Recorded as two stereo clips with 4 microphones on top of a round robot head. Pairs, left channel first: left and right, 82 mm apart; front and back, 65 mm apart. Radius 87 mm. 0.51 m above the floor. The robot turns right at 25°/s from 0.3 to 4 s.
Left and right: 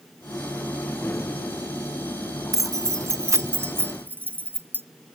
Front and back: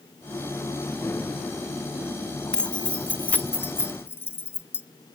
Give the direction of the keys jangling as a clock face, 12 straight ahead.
2 o'clock.